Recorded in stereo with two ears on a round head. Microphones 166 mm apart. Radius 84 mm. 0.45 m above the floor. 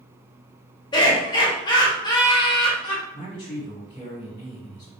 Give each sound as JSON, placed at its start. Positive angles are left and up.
{"t": 0.9, "sound": "laughter", "side_deg": 25, "distance_m": 1.3}
{"t": 3.1, "sound": "a man speaking", "side_deg": 25, "distance_m": 1.0}